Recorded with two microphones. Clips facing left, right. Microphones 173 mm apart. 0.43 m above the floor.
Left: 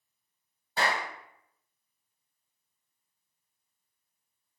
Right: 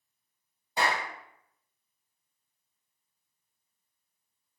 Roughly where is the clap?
Centre.